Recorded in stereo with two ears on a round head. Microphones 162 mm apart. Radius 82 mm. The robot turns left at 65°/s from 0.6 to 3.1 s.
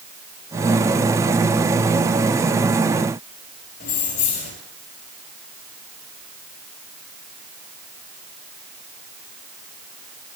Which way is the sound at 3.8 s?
60° left (ahead or behind).